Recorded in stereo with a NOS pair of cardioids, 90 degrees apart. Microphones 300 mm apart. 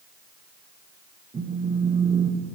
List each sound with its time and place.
1.3 s a phone buzzing: 25° right, 0.8 m